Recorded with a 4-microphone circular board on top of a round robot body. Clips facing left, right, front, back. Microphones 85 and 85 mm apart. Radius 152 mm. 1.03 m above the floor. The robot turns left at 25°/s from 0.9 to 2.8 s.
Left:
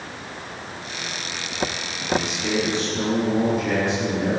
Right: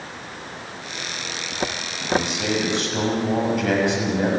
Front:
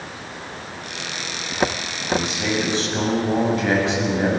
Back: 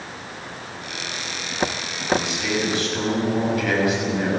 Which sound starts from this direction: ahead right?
A man speaking, at 2.1 s.